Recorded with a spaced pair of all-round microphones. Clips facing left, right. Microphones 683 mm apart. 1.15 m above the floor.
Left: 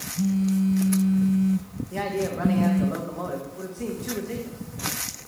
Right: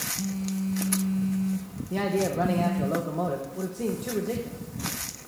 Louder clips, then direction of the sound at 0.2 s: Left 8 dB; 50° left (ahead or behind).